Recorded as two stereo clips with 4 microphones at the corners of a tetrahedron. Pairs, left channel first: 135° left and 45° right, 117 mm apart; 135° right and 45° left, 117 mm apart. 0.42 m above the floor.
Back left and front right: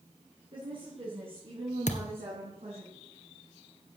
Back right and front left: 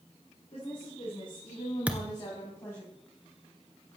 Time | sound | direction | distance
0.5 | a woman speaking | 90° right | 6 m
1.9 | a thud | 125° left | 1.4 m